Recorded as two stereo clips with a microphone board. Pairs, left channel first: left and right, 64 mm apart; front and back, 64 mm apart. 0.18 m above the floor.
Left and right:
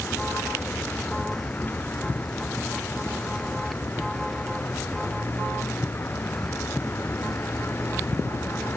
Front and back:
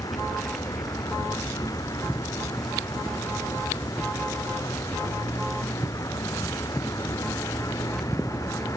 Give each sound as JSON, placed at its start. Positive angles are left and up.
{"t": 0.0, "sound": "a vehicle", "azimuth_deg": 25}